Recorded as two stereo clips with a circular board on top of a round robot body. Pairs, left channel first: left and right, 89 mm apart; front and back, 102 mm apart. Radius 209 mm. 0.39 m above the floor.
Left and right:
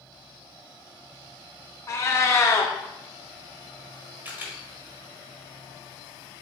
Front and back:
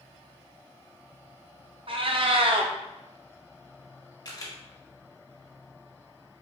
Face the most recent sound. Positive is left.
turn(degrees=-30)